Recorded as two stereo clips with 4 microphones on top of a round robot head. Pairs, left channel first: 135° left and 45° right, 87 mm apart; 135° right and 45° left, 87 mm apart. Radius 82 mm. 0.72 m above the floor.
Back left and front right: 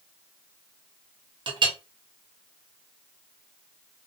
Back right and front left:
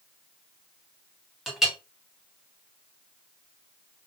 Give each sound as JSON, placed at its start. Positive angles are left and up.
{"t": 1.5, "sound": "a clink", "azimuth_deg": -40, "distance_m": 0.8}